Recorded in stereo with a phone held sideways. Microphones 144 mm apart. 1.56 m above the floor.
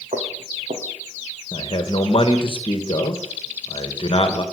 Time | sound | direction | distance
0.1 | footsteps | 60° right (ahead or behind) | 3 m
1.5 | a man speaking | 40° left (ahead or behind) | 1.4 m